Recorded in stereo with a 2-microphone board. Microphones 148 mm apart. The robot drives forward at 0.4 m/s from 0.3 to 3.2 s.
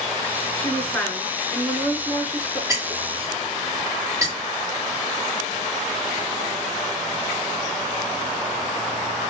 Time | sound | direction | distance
0.6 | a woman speaking | 10° left (ahead or behind) | 1.1 m
2.7 | breaking glass | 25° right (ahead or behind) | 2 m